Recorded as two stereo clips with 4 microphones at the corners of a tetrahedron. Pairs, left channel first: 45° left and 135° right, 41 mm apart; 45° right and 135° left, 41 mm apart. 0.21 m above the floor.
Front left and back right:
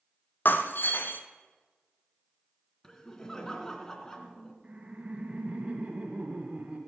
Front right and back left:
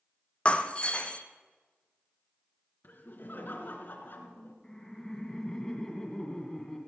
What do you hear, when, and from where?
0.5 s breaking glass: 15° left, 1.1 m
2.8 s laughter: 30° right, 2.5 m
4.6 s laughter: 115° right, 1.4 m